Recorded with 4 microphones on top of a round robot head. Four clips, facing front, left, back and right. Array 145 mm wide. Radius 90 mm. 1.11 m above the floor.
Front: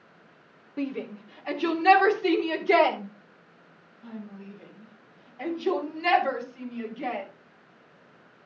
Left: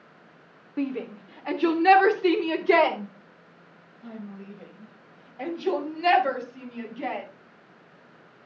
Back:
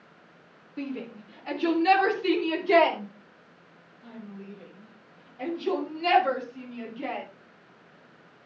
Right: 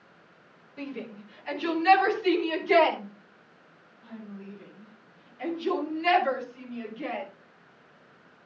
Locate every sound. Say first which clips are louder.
0.8 s a shout: left 8 dB, front 3 dB; 75° left, 3 m; by 7.2 s 85° left, 9.5 m